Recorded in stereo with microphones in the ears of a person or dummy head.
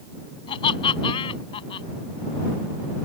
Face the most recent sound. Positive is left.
turn(degrees=30)  # may be behind; listen again after turning